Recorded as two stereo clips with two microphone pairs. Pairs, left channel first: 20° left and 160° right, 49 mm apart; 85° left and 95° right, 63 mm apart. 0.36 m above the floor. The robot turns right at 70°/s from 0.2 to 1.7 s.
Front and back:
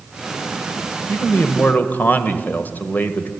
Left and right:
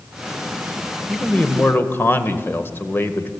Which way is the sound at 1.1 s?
Straight ahead.